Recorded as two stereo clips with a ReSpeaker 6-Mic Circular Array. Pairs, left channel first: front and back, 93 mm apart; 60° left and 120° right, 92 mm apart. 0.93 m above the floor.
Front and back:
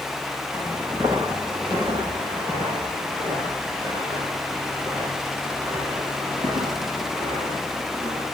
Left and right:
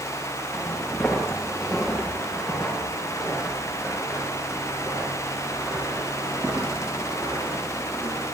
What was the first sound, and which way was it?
Footsteps, 140° left.